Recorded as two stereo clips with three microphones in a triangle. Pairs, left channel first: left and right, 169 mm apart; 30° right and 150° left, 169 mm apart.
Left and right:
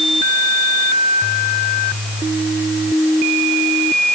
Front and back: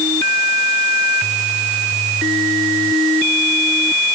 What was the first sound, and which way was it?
Only background noise.